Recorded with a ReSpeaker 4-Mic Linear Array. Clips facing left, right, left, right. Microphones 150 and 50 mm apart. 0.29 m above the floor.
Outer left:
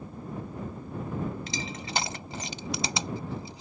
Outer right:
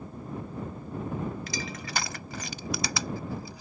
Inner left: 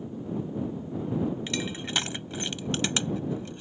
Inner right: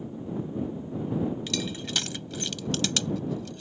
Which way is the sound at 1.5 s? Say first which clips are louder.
Even, even; 25° left (ahead or behind).